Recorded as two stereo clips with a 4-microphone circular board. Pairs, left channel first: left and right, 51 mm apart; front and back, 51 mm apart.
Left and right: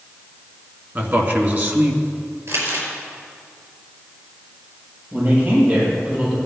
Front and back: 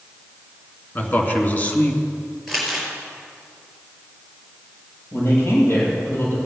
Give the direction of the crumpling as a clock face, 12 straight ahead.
3 o'clock.